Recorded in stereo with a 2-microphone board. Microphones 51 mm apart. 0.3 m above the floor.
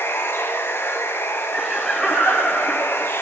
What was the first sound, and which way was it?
Running water, 55° left (ahead or behind).